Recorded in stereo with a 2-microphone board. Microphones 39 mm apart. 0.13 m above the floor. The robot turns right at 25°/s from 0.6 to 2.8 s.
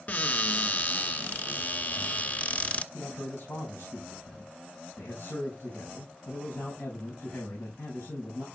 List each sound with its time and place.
0.1 s a cupboard door: 70° left, 0.9 m; by 2.8 s 125° left, 0.9 m
2.9 s a man speaking: 70° left (ahead or behind), 6.5 m